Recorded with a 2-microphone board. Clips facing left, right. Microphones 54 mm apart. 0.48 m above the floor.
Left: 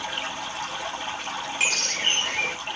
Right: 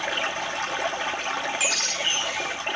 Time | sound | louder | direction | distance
0.0 | running water | right 4 dB | 65° right (ahead or behind) | 2.5 m
1.6 | a bird | left 1 dB | 45° left (ahead or behind) | 1.2 m